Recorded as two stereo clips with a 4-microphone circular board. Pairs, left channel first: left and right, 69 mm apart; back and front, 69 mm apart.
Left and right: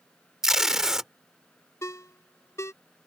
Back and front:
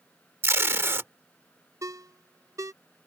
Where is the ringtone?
40° left.